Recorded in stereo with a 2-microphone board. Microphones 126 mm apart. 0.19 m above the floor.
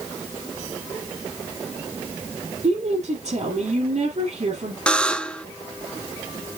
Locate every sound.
2.6 s a woman speaking: 60° right (ahead or behind), 4 m
4.9 s a buzzer: 10° left (ahead or behind), 0.5 m